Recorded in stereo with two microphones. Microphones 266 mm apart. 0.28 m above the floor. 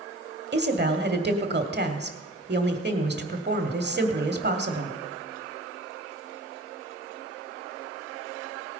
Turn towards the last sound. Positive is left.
turn(degrees=-40)  # may be behind; listen again after turning